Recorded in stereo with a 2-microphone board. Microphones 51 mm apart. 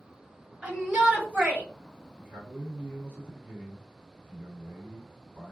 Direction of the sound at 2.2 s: 40° right (ahead or behind).